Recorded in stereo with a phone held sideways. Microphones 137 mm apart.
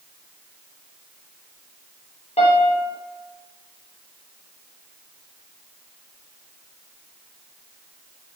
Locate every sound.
2.4 s a piano: 50° left (ahead or behind), 0.8 m